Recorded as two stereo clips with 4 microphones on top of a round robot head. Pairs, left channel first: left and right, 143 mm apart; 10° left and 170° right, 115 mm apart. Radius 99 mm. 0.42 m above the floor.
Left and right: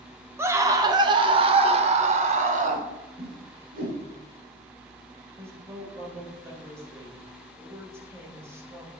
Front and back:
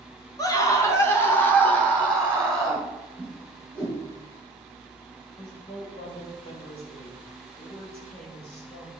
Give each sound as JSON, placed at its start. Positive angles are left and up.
{"t": 0.4, "sound": "a scream", "azimuth_deg": -25, "distance_m": 1.4}
{"t": 3.2, "sound": "a whoosh", "azimuth_deg": -75, "distance_m": 3.5}
{"t": 5.4, "sound": "a woman speaking", "azimuth_deg": -20, "distance_m": 3.0}